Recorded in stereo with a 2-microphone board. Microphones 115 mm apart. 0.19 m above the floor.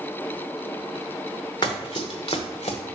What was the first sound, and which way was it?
Running footsteps, 40° left (ahead or behind).